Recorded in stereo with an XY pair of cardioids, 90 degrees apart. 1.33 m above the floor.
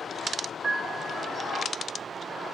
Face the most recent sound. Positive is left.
turn(degrees=-40)